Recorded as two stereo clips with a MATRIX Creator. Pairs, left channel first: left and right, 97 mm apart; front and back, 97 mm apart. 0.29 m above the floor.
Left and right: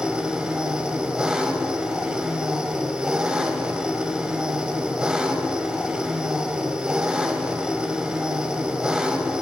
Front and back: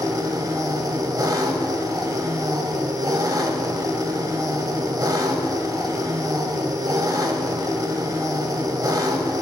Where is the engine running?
165° right, 0.7 m.